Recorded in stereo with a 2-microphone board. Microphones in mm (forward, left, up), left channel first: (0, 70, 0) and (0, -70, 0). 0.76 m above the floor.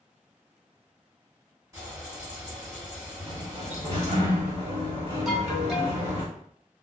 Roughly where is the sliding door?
Right.